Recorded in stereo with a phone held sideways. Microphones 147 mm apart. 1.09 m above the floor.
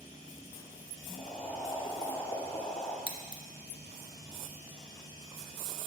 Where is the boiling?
35° left (ahead or behind), 1.4 m.